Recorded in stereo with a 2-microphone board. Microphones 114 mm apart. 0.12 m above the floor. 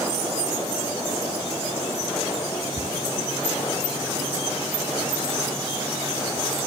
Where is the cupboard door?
45° right (ahead or behind).